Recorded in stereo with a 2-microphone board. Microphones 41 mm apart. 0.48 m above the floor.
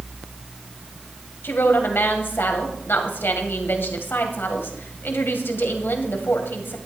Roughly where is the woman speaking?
Left.